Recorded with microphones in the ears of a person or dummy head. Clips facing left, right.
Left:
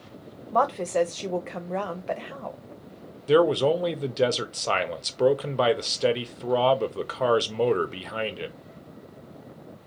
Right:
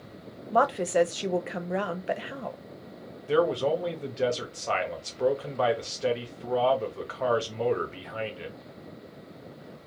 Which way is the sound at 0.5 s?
10° right (ahead or behind).